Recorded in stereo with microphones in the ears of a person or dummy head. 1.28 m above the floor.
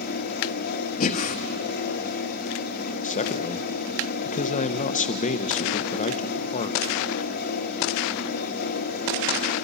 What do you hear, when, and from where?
0.0 s a fan: 55° left (ahead or behind), 1.3 m
1.0 s breathing: 40° left (ahead or behind), 1.2 m
3.0 s a man speaking: 35° left (ahead or behind), 1.0 m